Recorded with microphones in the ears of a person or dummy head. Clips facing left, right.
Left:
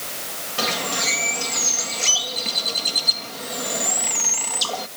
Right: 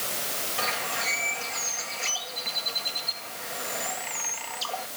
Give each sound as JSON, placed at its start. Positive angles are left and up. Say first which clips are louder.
{"t": 0.6, "sound": "a bird", "louder": "left 8 dB", "side_deg": 55}